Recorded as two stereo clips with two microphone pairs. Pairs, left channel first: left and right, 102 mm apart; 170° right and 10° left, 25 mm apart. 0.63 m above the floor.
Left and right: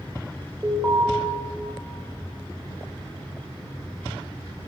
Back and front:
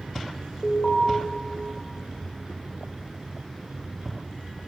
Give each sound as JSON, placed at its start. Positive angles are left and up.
{"t": 0.6, "sound": "an alarm", "azimuth_deg": -150, "distance_m": 1.3}